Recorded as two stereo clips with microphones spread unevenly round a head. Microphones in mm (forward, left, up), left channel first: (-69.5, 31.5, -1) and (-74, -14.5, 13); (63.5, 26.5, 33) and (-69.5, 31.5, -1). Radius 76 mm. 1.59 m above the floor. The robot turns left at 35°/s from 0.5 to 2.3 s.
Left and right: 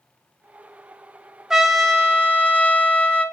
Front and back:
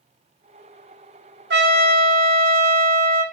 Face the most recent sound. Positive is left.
turn(degrees=160)